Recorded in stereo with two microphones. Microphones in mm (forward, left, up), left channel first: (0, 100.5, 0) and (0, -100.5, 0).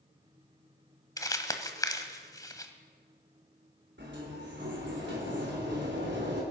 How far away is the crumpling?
About 1.2 m.